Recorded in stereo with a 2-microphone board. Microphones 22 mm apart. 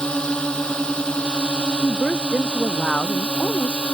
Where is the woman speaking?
65° left (ahead or behind).